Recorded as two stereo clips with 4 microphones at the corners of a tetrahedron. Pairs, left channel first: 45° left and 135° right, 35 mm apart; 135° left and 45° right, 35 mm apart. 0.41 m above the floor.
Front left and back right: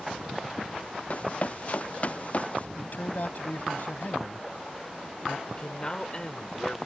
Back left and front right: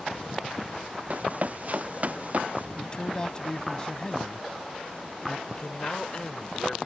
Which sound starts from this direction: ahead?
Running footsteps, at 1.1 s.